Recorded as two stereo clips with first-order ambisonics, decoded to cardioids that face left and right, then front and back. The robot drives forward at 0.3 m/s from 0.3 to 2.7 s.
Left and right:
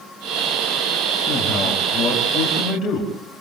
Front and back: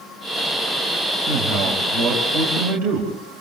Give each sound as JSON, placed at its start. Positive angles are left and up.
{"t": 1.3, "sound": "a man speaking", "azimuth_deg": 170, "distance_m": 4.5}